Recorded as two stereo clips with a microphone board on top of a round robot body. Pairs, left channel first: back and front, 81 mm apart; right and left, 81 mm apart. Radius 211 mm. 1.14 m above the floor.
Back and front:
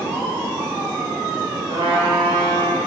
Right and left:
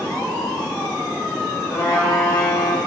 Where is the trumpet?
40° right, 1.2 m.